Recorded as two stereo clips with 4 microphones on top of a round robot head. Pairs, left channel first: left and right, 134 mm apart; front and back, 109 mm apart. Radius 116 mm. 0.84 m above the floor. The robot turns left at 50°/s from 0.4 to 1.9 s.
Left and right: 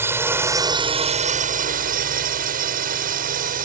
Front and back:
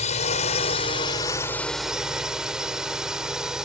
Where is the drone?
20° right; by 3.7 s 95° right.